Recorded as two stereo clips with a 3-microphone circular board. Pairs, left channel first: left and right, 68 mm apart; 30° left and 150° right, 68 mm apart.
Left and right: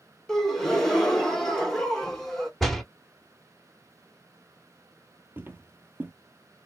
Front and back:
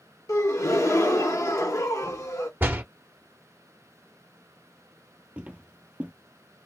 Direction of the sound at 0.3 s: 5° left.